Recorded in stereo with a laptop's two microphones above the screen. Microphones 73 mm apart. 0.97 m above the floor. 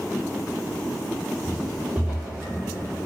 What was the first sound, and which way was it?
Footsteps, 40° right (ahead or behind).